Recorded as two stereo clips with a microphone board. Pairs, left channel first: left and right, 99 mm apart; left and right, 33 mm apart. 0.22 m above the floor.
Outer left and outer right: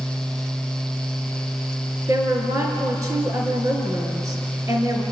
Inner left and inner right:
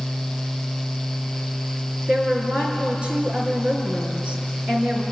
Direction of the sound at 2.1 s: 30° right (ahead or behind).